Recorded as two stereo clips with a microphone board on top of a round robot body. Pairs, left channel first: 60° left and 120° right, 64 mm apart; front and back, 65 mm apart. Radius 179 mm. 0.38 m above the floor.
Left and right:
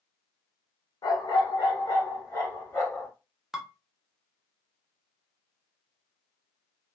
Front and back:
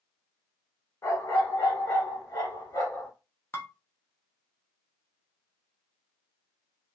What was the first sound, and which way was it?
A dog barking, 50° left.